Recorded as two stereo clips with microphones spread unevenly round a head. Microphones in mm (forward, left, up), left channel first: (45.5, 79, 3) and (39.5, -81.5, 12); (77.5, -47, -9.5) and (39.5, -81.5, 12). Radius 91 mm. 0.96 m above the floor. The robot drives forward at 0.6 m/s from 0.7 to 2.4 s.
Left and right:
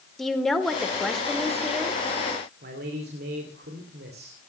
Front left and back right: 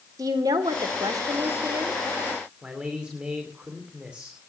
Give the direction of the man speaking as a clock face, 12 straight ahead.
2 o'clock.